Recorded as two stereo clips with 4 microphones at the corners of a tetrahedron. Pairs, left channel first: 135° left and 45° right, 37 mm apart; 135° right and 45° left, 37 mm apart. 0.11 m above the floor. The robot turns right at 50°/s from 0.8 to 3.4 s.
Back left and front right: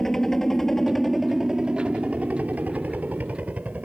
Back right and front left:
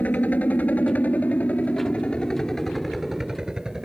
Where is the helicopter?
150° right; by 3.9 s 20° right.